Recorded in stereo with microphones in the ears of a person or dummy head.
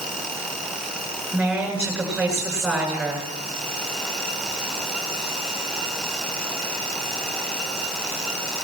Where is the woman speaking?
Centre (ahead or behind), 9 m.